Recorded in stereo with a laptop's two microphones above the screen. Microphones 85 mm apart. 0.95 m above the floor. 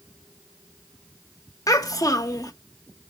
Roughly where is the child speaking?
Left.